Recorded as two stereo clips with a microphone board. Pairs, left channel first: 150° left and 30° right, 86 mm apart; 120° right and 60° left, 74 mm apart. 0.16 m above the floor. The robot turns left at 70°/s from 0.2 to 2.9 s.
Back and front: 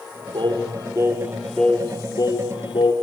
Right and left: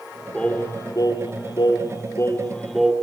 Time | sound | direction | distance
0.3 | singing | 40° right | 5.5 m